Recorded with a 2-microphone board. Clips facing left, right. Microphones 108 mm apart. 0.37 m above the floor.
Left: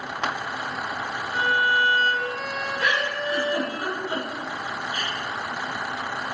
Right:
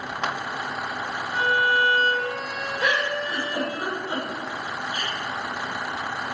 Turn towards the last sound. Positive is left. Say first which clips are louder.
# right 2 dB
turn(degrees=-25)  # may be behind; listen again after turning